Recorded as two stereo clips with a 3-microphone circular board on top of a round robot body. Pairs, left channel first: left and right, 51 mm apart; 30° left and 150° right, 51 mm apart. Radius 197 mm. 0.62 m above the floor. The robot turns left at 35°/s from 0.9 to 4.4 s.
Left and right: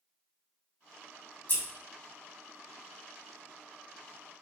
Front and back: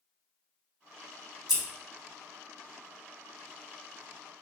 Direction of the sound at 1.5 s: 135° left.